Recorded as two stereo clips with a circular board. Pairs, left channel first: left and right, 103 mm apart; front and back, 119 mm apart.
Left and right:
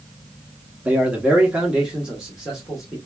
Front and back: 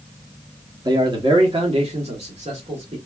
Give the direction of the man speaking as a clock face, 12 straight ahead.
5 o'clock.